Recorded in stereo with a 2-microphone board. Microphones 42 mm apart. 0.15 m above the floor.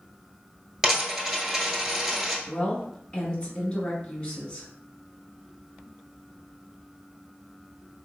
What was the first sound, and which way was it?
A dropped coin, 10° right (ahead or behind).